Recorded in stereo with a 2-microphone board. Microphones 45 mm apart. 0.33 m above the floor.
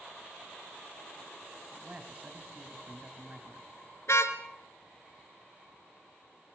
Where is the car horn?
70° left (ahead or behind), 2 m.